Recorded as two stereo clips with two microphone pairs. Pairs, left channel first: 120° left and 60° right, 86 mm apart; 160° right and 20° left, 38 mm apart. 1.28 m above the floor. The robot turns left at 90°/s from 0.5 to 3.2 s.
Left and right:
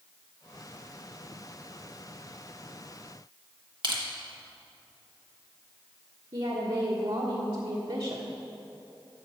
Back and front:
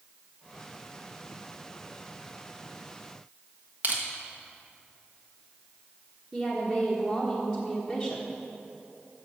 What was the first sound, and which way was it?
Crushing, 30° right.